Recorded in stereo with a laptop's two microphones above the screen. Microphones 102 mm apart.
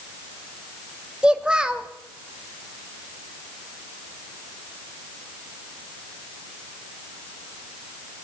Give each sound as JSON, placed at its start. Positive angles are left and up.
{"t": 1.2, "sound": "a child speaking", "side_deg": -10, "distance_m": 0.7}